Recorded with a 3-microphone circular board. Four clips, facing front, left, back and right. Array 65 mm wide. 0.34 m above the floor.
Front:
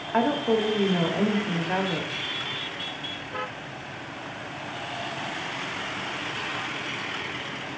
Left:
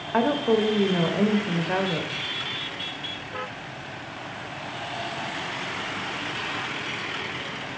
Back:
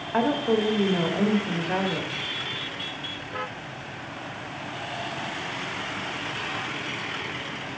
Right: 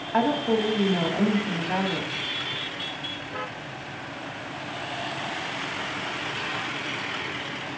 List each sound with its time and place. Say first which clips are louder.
0.1 s a woman speaking: left 1 dB, even; 85° left, 0.9 m